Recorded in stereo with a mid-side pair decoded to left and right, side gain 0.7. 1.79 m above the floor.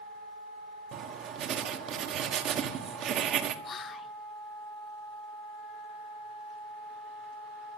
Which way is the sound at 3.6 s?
35° left.